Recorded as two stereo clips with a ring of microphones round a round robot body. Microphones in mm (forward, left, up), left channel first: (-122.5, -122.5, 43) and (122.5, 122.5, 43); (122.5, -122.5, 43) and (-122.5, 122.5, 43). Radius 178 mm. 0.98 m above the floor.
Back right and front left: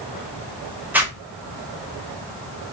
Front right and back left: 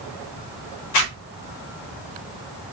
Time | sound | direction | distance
0.9 | a zipper | 40° right | 0.8 m